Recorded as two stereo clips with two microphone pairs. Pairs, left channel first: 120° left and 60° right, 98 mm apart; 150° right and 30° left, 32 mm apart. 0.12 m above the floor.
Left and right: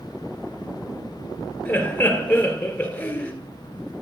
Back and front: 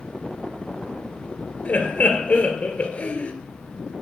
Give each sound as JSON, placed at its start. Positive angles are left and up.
{"t": 1.6, "sound": "laughter", "azimuth_deg": -175, "distance_m": 1.8}